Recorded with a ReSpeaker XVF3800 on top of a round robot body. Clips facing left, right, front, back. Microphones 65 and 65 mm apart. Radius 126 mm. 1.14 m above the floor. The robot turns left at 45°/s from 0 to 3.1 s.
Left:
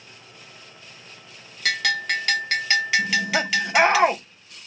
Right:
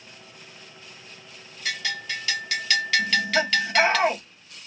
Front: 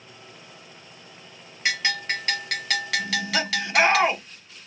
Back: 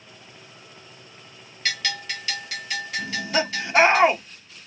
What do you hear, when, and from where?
1.6 s a bell: 75° left, 0.8 m; by 4.0 s 10° left, 0.8 m
3.0 s laughter: 120° left, 1.2 m; by 4.2 s 115° left, 1.2 m